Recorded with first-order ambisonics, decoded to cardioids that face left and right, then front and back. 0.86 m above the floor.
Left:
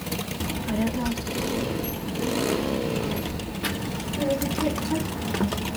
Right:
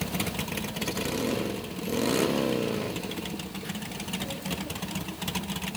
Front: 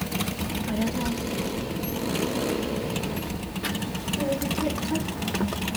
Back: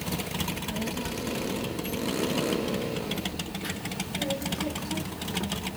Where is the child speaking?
65° left, 1.2 m.